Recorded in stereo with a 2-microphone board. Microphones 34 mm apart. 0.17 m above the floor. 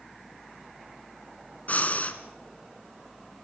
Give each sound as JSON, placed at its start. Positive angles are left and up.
{"t": 1.7, "sound": "breathing", "side_deg": 50, "distance_m": 2.5}